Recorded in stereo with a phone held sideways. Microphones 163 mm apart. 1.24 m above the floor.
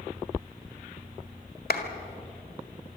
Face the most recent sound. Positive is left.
turn(degrees=75)  # may be behind; listen again after turning